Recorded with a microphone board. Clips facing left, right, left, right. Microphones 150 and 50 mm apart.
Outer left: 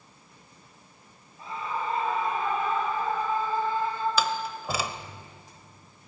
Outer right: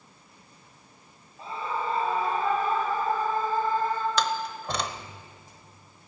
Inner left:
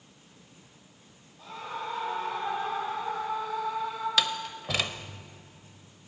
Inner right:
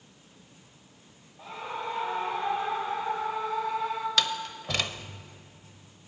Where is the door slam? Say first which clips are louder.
Even, even; 5° left (ahead or behind), 0.8 m.